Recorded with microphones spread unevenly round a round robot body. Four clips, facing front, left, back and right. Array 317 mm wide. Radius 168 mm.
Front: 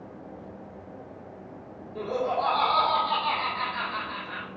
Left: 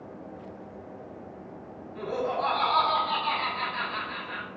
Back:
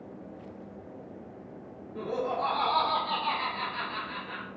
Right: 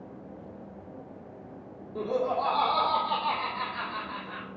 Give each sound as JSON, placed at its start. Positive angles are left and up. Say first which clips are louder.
{"t": 1.9, "sound": "laughter", "louder": "right 1 dB, front 3 dB", "azimuth_deg": -85, "distance_m": 1.9}